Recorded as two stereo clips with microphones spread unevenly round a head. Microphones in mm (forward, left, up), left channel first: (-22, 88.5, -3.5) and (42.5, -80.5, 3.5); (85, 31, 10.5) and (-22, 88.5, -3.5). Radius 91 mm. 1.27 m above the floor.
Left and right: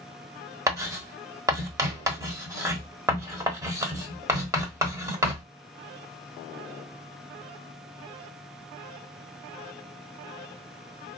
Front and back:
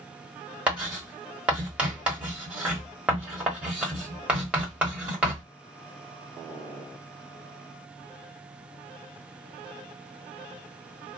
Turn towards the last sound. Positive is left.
turn(degrees=-120)